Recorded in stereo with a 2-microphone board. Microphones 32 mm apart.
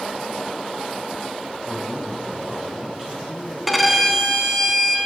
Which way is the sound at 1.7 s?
5° right (ahead or behind).